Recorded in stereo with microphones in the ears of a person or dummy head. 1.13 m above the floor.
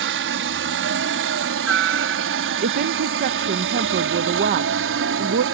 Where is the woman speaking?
45° right (ahead or behind).